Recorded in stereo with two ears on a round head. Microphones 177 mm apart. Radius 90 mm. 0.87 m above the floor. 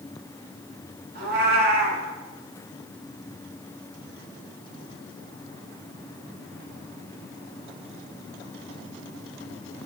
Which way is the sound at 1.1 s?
55° right (ahead or behind).